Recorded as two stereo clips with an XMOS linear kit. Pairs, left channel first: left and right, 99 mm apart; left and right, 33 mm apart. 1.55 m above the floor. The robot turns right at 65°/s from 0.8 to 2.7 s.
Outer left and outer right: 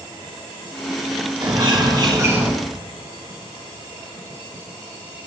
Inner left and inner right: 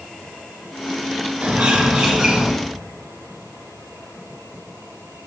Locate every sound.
1.4 s a bird: 90° right, 2.5 m; by 2.5 s 20° right, 2.5 m